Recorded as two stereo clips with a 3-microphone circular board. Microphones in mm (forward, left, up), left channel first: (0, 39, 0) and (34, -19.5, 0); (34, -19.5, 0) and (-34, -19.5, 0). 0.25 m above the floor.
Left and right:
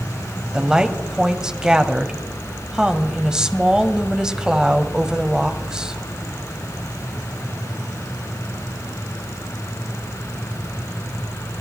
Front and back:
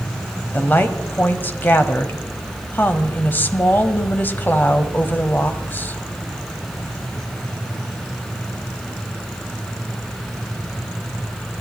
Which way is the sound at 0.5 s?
10° left.